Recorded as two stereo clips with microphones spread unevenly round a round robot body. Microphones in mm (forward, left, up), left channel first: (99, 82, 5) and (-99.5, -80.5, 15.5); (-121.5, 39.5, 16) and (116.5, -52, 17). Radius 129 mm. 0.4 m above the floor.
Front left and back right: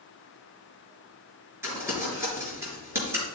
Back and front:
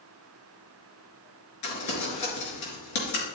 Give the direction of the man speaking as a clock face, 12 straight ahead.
I don't hear a man speaking.